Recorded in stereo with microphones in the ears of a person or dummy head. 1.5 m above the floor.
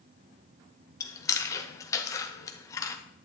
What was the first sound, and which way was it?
Chewing, 15° left (ahead or behind).